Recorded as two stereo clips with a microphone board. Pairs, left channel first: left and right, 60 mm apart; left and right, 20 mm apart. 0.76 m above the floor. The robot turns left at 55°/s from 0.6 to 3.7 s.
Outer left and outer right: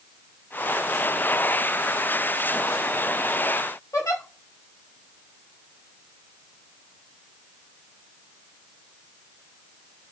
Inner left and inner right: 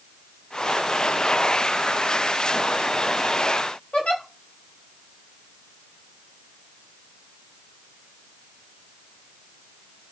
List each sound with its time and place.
3.9 s a giggle: 75° left (ahead or behind), 1.3 m